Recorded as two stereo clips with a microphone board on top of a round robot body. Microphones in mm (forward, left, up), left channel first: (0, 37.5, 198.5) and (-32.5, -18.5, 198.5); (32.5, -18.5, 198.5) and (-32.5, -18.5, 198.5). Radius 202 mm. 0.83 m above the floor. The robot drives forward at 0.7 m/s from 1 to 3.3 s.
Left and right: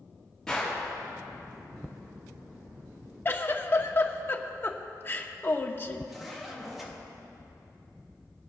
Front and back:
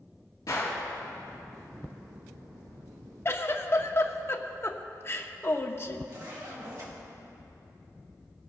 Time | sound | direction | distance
0.5 | a gunshot | 25° right | 3.5 m
3.2 | a giggle | 20° left | 1.1 m
6.1 | a zipper | 155° left | 2 m